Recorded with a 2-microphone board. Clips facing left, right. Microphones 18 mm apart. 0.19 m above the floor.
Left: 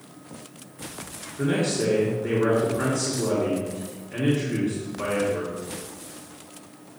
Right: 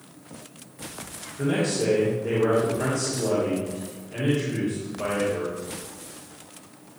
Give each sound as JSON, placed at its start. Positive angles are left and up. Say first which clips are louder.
{"t": 1.4, "sound": "a man speaking", "louder": "even", "side_deg": 60, "distance_m": 3.0}